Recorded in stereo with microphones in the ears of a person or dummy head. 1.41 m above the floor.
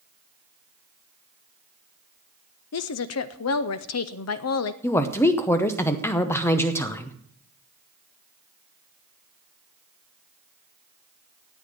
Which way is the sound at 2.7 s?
75° left (ahead or behind).